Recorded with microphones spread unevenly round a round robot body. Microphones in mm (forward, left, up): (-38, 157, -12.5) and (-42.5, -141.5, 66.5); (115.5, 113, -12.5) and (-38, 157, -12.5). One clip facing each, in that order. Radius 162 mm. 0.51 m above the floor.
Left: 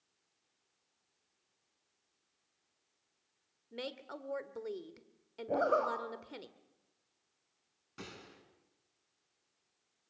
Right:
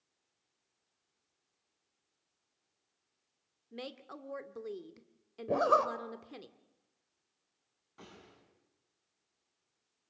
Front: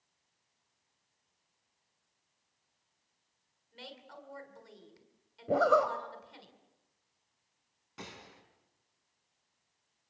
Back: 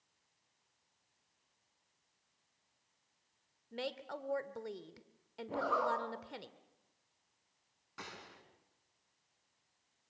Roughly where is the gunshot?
Ahead left.